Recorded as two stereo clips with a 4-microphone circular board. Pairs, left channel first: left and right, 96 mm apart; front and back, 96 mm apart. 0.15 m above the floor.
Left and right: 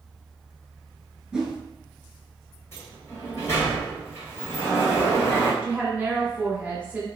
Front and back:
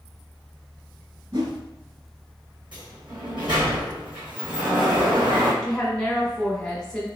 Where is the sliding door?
150° left, 1.8 m.